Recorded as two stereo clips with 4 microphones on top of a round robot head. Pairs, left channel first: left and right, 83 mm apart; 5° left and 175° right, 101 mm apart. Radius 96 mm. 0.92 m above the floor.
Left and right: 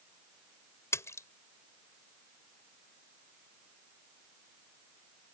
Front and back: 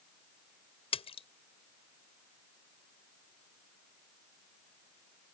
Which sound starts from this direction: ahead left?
A splash, at 0.9 s.